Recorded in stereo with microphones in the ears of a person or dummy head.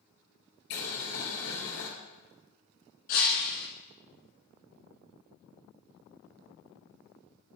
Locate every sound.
0.7 s boiling: 60° left (ahead or behind), 3 m
3.1 s breaking glass: 50° left (ahead or behind), 1.7 m